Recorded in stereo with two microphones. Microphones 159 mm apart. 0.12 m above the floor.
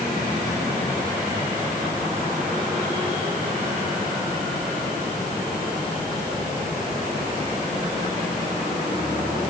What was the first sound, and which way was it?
Only background noise.